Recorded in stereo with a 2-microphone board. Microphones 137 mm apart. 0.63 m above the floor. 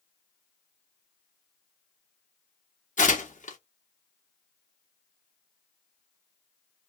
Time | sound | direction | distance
3.0 | tearing paper | 65° left (ahead or behind) | 1.0 m